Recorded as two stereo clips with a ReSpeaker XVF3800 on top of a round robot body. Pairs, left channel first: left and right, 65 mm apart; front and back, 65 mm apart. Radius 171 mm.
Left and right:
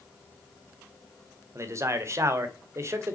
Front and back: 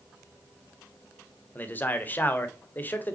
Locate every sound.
1.6 s a man speaking: 55° right, 2.5 m